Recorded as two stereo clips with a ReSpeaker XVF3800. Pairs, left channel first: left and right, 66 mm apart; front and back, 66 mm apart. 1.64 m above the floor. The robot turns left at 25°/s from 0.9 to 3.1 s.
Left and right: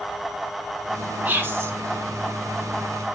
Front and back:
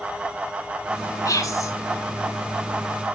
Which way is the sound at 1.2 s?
30° right.